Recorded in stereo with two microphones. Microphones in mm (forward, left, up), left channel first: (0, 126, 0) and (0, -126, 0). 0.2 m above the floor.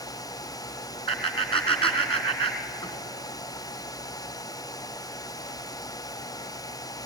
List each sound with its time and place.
1.1 s laughter: 20° left (ahead or behind), 2.5 m